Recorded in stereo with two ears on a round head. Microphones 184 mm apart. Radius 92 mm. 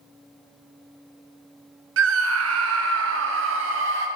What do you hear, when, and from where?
2.0 s a scream: 75° right (ahead or behind), 1.2 m; by 4.1 s 65° right (ahead or behind), 2.5 m